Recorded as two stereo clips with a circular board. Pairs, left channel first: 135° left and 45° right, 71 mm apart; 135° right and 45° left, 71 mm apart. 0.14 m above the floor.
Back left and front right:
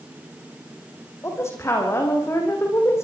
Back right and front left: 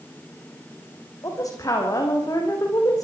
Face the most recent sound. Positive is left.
turn(degrees=-170)